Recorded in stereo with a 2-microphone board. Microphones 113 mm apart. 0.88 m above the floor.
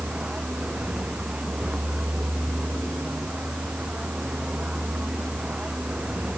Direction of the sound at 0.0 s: 10° right (ahead or behind).